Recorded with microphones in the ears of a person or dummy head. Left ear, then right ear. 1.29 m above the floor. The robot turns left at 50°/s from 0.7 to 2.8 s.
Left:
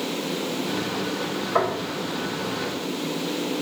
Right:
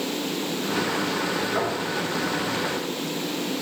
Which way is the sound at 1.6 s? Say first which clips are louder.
Left 3 dB; 25° left (ahead or behind).